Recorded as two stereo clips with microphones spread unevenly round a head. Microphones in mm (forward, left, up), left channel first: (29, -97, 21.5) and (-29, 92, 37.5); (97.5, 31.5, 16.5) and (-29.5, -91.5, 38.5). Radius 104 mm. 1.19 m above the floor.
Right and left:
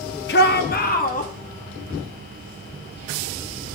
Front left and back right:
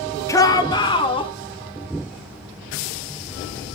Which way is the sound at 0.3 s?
30° right.